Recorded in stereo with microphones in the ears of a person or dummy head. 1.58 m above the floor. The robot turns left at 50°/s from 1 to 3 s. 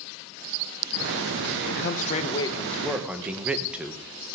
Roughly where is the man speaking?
Ahead left.